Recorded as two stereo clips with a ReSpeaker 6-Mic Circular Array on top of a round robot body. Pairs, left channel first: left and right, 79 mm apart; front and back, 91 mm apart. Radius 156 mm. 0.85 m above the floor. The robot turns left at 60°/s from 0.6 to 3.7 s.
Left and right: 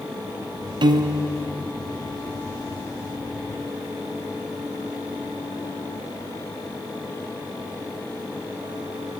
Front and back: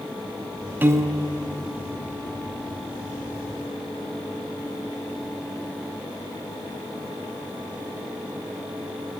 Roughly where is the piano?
Right.